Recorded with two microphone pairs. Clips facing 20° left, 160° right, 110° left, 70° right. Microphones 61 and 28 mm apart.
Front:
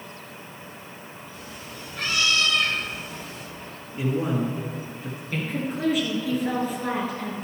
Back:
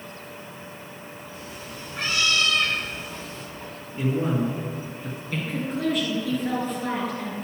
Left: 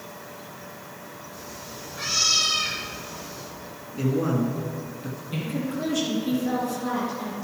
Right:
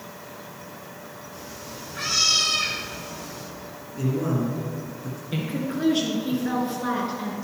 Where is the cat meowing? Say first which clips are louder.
Back 2 dB, right 1 dB; 110° right, 3.5 m; by 3.5 s 60° right, 3 m.